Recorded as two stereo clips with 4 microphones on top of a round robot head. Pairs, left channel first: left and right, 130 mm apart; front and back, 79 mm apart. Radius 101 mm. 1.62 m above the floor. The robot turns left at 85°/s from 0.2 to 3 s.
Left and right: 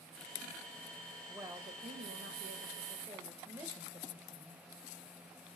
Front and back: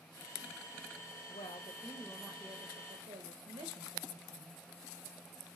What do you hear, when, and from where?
1.3 s a woman speaking: 5° right, 1.6 m; by 4.7 s 155° right, 1.6 m